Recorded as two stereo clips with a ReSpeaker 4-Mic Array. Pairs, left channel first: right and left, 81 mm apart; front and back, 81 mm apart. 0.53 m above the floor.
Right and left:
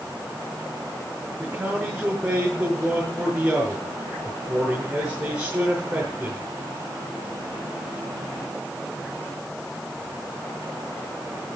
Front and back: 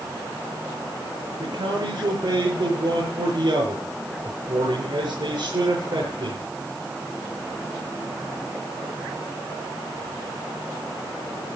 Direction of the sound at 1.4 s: 170° left.